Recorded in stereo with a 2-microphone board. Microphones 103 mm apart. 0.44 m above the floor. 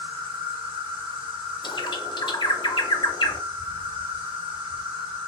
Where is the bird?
55° left (ahead or behind), 0.5 m.